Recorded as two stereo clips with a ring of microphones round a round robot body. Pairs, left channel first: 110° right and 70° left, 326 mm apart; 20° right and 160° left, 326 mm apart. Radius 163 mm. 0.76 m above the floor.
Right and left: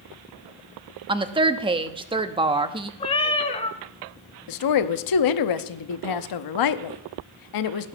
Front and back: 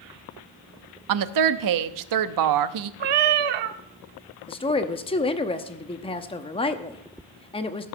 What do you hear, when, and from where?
1.1 s a woman speaking: 140° left, 0.8 m
3.0 s a cat meowing: 175° left, 0.8 m
4.5 s a woman speaking: 95° right, 0.8 m